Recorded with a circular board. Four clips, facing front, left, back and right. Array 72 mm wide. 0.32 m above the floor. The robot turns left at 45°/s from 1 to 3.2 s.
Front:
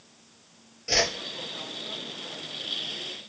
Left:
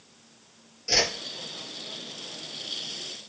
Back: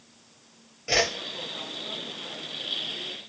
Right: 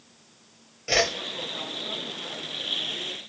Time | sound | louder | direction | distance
0.9 | a whoosh | right 4 dB, back 2 dB | 120° right | 0.6 m